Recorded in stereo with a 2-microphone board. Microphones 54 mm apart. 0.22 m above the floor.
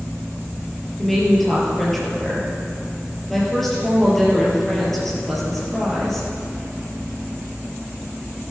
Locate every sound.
1.0 s a woman speaking: 5° left (ahead or behind), 4.5 m